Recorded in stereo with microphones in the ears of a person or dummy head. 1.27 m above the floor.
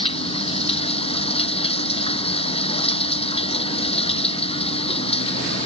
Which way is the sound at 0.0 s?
30° left (ahead or behind).